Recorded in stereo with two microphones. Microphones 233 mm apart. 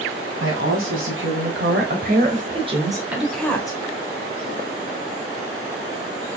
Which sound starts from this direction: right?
A woman speaking, at 0.4 s.